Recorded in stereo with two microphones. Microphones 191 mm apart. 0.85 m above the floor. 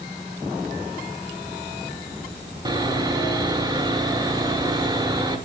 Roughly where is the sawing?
Right.